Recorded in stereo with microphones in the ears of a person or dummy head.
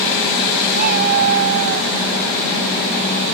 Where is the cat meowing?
45° right (ahead or behind); by 1.9 s 50° right (ahead or behind).